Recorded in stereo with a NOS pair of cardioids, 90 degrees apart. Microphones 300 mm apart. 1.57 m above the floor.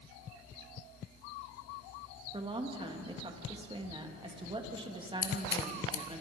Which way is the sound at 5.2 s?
55° left.